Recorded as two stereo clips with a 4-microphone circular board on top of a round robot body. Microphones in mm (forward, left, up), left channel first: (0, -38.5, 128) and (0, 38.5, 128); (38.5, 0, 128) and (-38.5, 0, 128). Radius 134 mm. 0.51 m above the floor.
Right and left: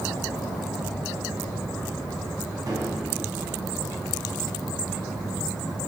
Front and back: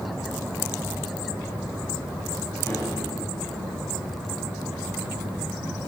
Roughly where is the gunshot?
Ahead left.